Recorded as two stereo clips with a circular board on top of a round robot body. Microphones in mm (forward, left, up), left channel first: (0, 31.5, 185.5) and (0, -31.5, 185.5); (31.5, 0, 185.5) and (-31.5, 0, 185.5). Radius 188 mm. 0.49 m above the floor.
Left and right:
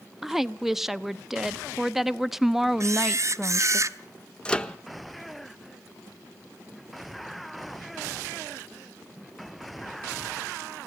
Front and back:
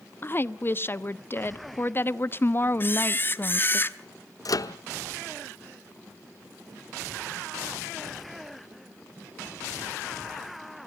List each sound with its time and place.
0.2 s a woman speaking: 10° right, 1.1 m
2.8 s a camera shutter: 55° right, 1.1 m
4.5 s a microwave: 15° left, 1.0 m